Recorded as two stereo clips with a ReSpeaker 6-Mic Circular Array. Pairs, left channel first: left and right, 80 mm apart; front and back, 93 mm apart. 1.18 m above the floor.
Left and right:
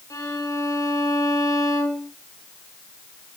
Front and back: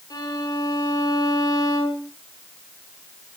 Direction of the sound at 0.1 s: 45° left.